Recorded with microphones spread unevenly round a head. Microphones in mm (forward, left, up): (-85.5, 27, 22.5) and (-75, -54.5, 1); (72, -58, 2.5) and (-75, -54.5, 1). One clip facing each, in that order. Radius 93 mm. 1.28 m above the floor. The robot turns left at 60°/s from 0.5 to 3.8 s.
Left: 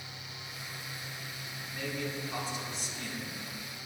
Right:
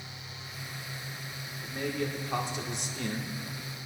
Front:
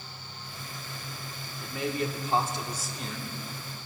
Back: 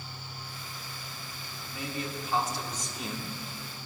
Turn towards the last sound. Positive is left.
turn(degrees=-145)